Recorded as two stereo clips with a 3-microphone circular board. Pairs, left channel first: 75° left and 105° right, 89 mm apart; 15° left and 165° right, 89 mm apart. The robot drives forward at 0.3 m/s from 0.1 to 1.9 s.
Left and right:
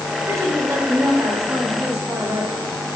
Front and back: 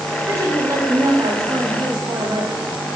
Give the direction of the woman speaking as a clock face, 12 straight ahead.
4 o'clock.